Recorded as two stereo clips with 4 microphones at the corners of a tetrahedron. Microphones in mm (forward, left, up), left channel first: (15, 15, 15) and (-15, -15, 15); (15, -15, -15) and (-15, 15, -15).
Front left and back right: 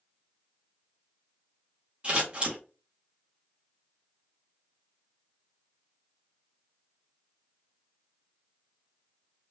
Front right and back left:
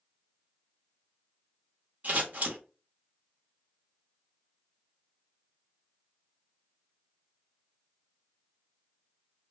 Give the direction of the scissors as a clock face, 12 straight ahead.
6 o'clock.